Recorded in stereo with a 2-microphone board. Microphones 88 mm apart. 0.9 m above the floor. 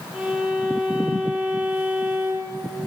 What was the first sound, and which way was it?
A violin, 10° right (ahead or behind).